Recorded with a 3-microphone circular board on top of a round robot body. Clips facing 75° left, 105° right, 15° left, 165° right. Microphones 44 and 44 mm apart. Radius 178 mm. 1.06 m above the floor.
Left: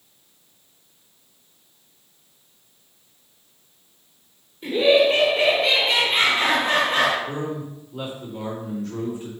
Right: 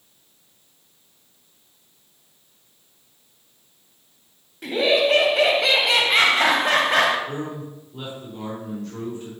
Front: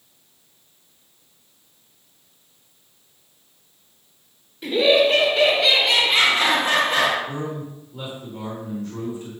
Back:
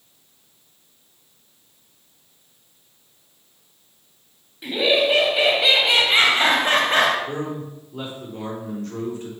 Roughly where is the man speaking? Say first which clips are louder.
Left 2 dB, back 1 dB; behind left.